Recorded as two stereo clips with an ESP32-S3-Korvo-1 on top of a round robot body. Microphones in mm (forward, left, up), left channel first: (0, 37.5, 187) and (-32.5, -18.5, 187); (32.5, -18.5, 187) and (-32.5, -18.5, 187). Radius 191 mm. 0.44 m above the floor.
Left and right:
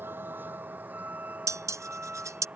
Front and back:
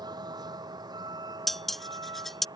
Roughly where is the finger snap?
I don't hear a finger snap.